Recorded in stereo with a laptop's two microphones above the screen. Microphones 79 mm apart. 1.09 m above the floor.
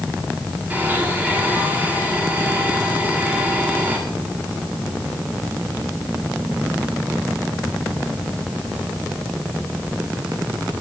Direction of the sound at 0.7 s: 25° right (ahead or behind).